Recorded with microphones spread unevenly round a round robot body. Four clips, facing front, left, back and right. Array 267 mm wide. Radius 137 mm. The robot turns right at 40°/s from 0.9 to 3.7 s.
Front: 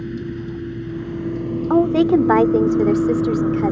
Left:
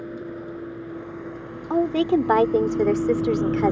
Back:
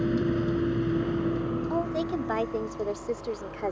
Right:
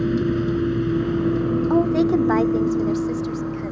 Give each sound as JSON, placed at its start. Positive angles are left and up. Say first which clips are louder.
{"t": 0.0, "sound": "a vehicle", "louder": "right 12 dB, back 2 dB", "azimuth_deg": -90}
{"t": 1.7, "sound": "a woman speaking", "louder": "even, front 19 dB", "azimuth_deg": -5}